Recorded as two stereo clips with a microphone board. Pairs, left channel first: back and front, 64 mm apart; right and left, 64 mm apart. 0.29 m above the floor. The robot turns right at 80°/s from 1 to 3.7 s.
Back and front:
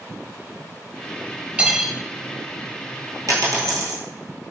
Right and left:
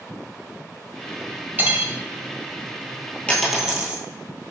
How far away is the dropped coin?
About 1.2 m.